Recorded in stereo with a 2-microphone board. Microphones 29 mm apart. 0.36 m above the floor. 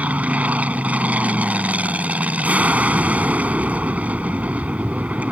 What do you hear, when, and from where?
0.0 s an aircraft: 65° right (ahead or behind)